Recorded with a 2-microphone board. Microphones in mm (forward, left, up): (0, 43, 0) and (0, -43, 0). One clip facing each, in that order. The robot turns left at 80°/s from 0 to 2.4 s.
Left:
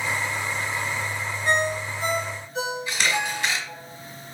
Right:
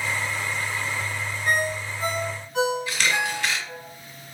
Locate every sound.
1.4 s a ringtone: 5° left (ahead or behind), 2.5 m; by 3.8 s 65° right (ahead or behind), 2.5 m
2.9 s a camera shutter: 20° left (ahead or behind), 1.2 m